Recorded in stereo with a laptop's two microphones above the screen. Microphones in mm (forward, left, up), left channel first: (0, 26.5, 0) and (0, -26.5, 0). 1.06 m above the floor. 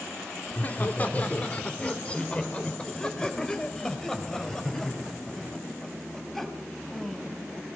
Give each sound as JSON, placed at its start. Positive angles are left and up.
{"t": 0.5, "sound": "laughter", "side_deg": 35, "distance_m": 3.0}